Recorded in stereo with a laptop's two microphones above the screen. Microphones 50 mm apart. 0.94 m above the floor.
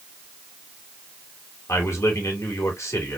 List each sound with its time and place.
1.7 s a man speaking: 65° left (ahead or behind), 2.5 m